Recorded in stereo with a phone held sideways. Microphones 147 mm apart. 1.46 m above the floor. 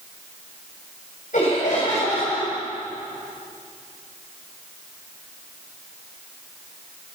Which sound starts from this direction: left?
Laughter, at 1.3 s.